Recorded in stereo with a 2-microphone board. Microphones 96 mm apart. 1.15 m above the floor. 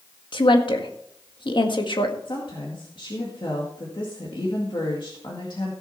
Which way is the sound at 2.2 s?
55° left (ahead or behind).